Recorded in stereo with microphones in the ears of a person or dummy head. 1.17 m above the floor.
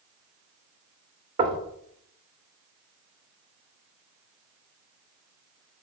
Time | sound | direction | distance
1.4 | knocking | 20° right (ahead or behind) | 0.6 m